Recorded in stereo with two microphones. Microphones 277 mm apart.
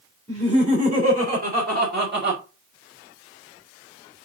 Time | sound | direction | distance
0.3 | laughter | 25° right (ahead or behind) | 3.5 m